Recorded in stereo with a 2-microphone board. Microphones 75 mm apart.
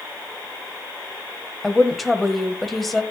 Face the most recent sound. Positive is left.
turn(degrees=0)  # may be behind; listen again after turning